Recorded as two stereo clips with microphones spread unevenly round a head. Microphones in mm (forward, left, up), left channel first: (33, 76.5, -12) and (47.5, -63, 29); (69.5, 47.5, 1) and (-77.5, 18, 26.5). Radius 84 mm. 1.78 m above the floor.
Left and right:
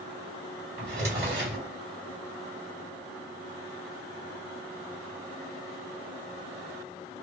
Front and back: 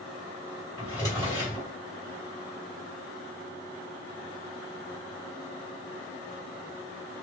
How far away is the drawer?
About 1.9 m.